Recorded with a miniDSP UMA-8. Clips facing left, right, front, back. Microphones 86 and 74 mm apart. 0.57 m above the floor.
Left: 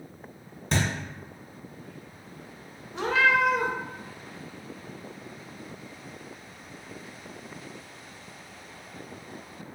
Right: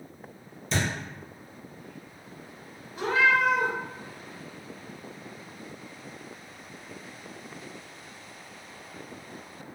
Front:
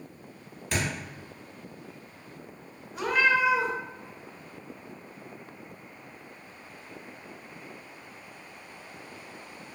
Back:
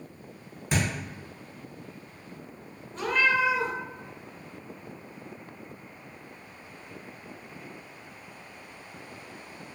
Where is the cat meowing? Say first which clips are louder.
Even, front 1 dB; 80° left, 0.6 m.